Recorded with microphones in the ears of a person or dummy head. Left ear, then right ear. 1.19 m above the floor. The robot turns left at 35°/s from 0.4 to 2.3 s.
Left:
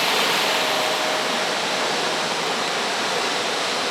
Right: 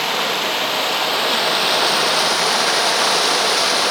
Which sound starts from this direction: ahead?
Running water, at 0.0 s.